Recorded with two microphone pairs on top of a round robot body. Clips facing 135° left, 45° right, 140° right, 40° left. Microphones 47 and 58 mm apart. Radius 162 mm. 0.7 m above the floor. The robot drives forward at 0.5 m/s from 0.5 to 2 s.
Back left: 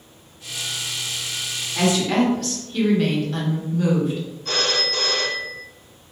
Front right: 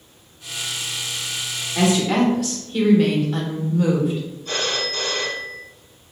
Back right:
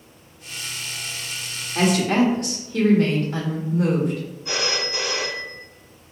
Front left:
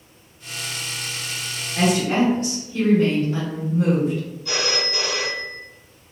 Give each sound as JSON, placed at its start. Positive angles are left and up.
{"t": 1.8, "sound": "a woman speaking", "azimuth_deg": -120, "distance_m": 1.2}
{"t": 4.5, "sound": "a phone ringing", "azimuth_deg": 155, "distance_m": 1.3}